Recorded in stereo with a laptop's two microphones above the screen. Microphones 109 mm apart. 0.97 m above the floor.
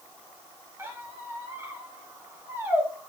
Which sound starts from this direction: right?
A squeak, at 0.8 s.